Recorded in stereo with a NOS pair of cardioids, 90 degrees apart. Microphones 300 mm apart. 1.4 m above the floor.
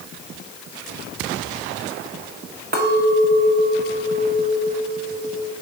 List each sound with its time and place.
2.7 s a clink: 35° right, 2.0 m